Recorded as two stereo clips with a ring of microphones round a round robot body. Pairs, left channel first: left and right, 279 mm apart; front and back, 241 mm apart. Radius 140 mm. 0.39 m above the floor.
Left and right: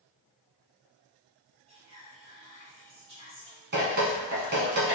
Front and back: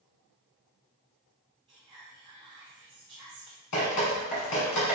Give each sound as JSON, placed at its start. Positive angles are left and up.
{"t": 1.7, "sound": "whispering", "azimuth_deg": -130, "distance_m": 0.9}
{"t": 3.7, "sound": "dripping", "azimuth_deg": -35, "distance_m": 1.5}